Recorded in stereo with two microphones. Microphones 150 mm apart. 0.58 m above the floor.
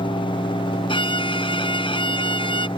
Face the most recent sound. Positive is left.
turn(degrees=35)  # may be behind; listen again after turning